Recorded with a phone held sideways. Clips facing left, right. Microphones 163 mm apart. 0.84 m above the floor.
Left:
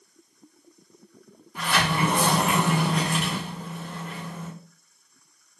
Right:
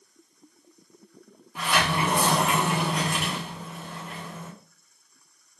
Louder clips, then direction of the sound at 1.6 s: Left 1 dB; 5° right (ahead or behind).